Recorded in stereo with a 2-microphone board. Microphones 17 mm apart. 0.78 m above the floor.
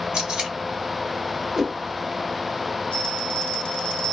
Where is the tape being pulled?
80° right, 1.2 m.